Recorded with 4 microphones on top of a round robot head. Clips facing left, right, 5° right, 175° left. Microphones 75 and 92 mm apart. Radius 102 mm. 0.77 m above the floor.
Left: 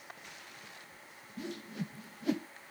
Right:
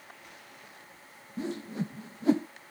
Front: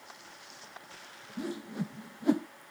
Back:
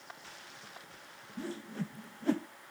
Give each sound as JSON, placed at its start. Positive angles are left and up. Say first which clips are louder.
{"t": 1.4, "sound": "a whoosh", "louder": "right 7 dB, front 3 dB", "azimuth_deg": -70}